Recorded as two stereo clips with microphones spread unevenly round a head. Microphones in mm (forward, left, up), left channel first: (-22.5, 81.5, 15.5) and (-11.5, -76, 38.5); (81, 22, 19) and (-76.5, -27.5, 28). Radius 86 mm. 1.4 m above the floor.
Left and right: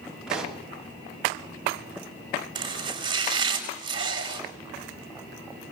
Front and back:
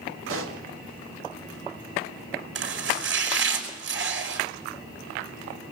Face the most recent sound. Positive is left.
turn(degrees=-145)